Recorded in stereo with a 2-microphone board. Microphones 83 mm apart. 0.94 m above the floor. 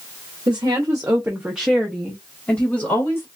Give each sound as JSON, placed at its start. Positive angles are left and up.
{"t": 0.5, "sound": "a woman speaking", "side_deg": -55, "distance_m": 0.8}